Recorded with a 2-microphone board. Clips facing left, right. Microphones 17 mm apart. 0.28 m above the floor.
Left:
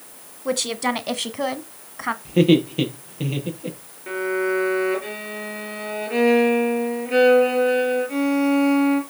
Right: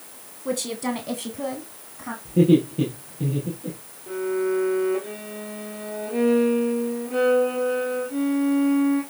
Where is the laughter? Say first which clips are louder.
Left 1 dB; 75° left (ahead or behind), 7 m.